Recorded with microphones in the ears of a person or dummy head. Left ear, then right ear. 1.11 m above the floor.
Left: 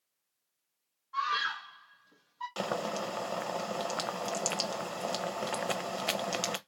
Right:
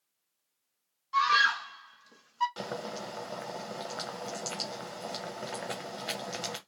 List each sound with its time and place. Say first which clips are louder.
1.1 s a scream: right 7 dB; 80° right, 1.3 m; by 2.5 s 55° right (ahead or behind), 0.9 m
2.6 s boiling: left 4 dB; 35° left (ahead or behind), 0.5 m